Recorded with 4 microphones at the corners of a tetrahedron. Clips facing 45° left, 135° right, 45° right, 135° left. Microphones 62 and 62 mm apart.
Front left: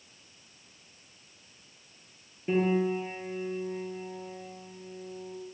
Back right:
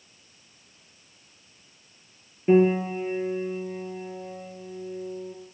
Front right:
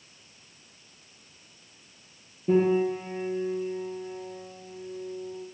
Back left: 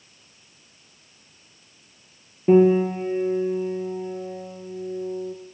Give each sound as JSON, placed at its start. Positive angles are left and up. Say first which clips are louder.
{"t": 2.5, "sound": "a piano", "louder": "back right 7 dB, back left 7 dB", "azimuth_deg": 165, "distance_m": 3.5}